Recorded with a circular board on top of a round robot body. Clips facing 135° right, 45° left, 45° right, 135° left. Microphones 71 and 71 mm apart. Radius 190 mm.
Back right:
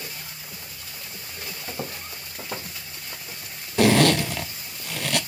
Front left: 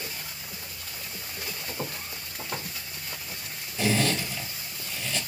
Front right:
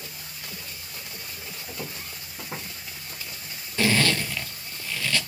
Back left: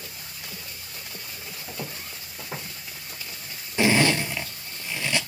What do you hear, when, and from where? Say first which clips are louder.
1.7 s footsteps: back right 3 dB, back left 1 dB; 145° right, 2 m; by 3.5 s 110° right, 2.5 m
3.8 s a zipper: back right 8 dB, back left 2 dB; 155° right, 0.5 m